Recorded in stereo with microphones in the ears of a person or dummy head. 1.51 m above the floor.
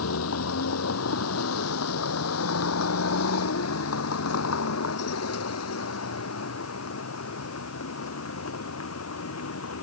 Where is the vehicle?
85° left; by 9.8 s 80° left.